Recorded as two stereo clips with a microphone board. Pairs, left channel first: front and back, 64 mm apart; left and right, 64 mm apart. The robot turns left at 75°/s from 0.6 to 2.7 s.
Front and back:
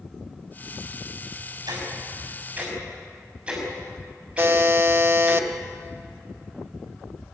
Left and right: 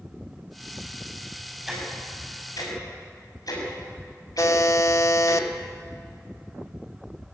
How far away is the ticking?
About 6.5 m.